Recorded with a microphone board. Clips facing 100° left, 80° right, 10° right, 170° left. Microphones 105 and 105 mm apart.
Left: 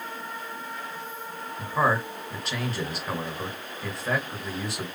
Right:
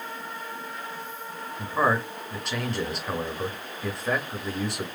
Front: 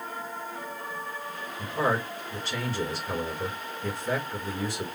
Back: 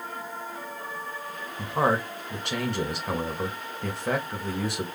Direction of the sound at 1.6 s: 170° right.